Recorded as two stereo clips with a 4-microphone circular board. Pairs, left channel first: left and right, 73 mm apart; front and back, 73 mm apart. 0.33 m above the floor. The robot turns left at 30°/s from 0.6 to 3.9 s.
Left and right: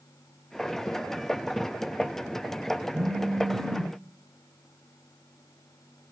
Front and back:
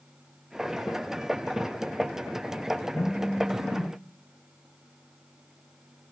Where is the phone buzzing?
60° right, 1.6 m; by 3.9 s 90° right, 1.6 m.